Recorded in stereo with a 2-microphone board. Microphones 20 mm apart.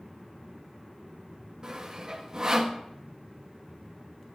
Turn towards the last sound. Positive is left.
turn(degrees=-35)  # may be behind; listen again after turning